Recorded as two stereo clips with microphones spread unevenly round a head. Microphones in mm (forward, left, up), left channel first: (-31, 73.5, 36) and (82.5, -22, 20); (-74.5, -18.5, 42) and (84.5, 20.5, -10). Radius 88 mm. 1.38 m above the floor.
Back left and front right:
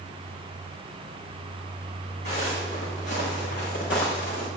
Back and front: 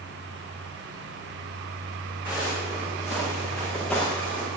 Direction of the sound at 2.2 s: 100° left.